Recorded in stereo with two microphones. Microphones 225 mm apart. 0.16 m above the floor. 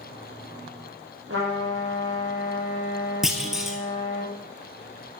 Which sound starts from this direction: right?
A trumpet, at 1.3 s.